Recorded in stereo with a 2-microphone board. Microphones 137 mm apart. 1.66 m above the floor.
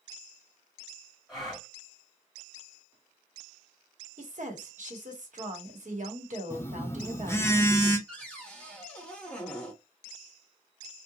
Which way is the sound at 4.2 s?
65° right (ahead or behind).